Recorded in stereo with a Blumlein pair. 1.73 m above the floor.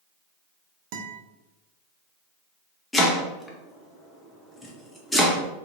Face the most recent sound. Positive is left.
turn(degrees=5)